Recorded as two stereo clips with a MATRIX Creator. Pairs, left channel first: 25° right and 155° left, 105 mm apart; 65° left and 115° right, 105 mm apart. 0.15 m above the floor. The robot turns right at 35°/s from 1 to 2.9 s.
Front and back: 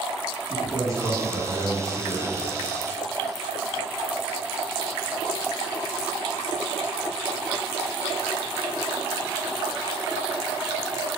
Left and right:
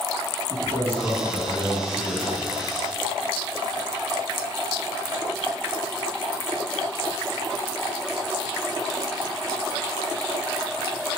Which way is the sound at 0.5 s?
120° left.